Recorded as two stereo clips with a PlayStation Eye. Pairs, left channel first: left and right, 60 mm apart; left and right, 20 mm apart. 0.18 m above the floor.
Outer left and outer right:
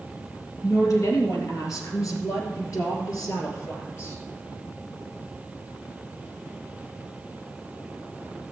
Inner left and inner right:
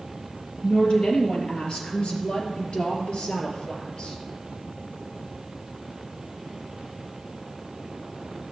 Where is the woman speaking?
55° left (ahead or behind), 3.5 m; by 4.2 s 50° left (ahead or behind), 3 m.